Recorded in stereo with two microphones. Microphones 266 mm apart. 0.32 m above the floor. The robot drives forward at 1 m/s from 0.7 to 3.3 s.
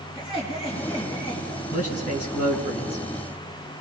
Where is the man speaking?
60° left (ahead or behind), 3 m.